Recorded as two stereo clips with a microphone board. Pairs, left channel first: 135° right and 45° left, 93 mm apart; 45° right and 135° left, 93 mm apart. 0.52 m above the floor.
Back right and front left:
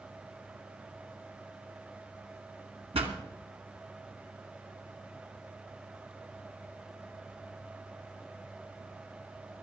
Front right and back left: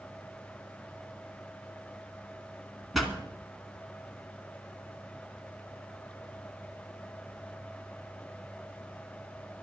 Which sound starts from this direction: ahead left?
A pop, at 2.9 s.